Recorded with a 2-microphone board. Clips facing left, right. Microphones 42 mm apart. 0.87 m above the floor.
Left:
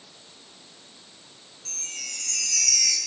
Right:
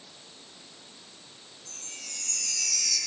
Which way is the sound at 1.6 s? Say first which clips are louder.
Left 7 dB; 80° left.